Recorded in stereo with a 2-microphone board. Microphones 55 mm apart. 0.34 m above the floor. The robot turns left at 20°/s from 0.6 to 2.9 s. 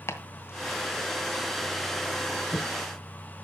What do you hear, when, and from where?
0.1 s chopping: 50° left (ahead or behind), 1.5 m; by 2.7 s 45° left (ahead or behind), 1.5 m